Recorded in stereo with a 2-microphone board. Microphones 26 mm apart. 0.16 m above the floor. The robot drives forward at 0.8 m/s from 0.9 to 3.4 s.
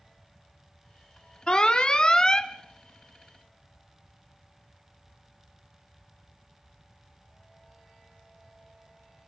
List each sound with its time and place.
1.5 s an alarm: 25° left (ahead or behind), 0.8 m; by 2.5 s 20° left (ahead or behind), 1.0 m